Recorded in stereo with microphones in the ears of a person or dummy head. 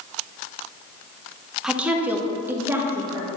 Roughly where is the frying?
No frying in this recording.